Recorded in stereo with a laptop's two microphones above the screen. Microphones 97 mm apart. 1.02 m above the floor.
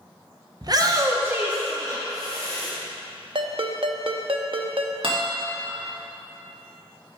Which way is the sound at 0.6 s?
45° right (ahead or behind).